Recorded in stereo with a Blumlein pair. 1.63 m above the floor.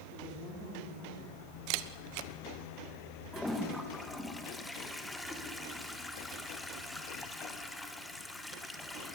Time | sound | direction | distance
0.1 | a woman speaking | 25° left | 5 m
1.7 | a camera shutter | 45° right | 1.2 m
3.3 | a toilet flushing | 5° left | 2 m